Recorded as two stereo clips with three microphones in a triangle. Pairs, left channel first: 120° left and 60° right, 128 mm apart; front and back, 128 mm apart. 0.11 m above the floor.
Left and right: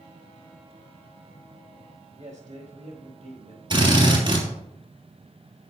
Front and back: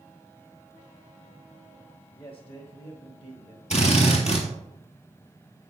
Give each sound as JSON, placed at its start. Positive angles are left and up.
{"t": 2.1, "sound": "a man speaking", "azimuth_deg": -45, "distance_m": 4.0}
{"t": 3.7, "sound": "a drill", "azimuth_deg": -15, "distance_m": 3.0}